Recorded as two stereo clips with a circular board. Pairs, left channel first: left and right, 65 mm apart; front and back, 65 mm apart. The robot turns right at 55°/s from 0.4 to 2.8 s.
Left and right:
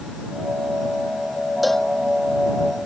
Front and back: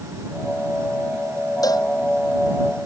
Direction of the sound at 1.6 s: Straight ahead.